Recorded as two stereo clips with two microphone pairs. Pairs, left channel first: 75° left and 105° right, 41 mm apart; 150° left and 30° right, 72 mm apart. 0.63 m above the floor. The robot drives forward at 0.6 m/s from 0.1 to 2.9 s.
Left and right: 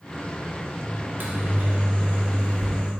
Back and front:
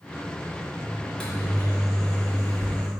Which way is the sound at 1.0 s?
125° right.